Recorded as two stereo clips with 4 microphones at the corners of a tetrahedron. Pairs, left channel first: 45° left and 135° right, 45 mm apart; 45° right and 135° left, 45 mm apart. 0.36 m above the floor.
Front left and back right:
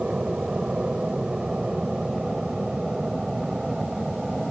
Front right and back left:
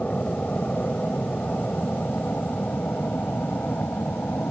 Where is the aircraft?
80° right; by 4.5 s 55° right.